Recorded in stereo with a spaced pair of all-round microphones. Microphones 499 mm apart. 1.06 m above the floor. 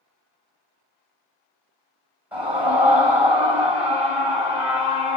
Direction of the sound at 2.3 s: 5° right (ahead or behind).